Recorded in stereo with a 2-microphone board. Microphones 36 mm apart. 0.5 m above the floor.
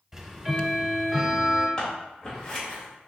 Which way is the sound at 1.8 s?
15° left (ahead or behind).